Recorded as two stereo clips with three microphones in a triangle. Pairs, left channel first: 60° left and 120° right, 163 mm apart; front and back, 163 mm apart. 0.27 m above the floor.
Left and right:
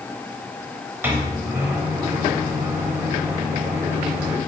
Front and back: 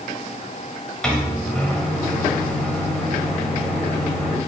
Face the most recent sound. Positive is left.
turn(degrees=-75)